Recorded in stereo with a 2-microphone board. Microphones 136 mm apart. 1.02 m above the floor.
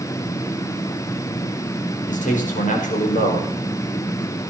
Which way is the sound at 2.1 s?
75° left (ahead or behind).